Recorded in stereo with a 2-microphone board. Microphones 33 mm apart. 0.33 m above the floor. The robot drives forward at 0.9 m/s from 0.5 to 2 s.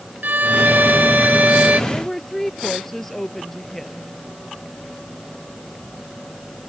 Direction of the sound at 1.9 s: 10° left (ahead or behind).